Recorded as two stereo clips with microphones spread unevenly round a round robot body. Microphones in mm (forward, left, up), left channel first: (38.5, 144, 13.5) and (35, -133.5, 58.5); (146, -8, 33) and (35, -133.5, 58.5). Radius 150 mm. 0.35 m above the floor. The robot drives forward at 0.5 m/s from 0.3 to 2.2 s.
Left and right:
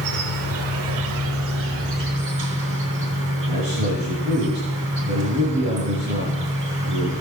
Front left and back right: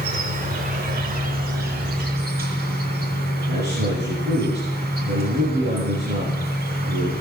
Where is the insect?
115° right, 1.9 m; by 7.2 s 140° right, 2.5 m.